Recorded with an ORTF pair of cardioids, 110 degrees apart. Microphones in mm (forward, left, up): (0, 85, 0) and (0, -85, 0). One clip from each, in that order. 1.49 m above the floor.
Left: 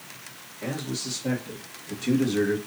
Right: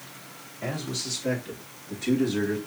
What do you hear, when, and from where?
0.6 s a man speaking: 15° right, 2 m; by 2.6 s 25° left, 1.4 m